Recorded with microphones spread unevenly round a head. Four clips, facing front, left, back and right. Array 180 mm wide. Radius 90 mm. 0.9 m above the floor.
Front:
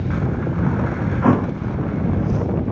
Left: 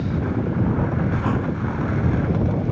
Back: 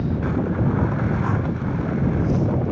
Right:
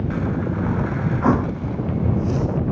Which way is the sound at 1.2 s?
25° right.